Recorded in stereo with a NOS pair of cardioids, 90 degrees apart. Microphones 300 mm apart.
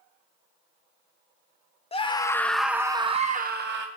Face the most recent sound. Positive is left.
turn(degrees=-40)